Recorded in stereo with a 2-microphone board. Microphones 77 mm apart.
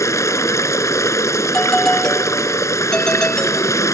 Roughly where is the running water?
Left.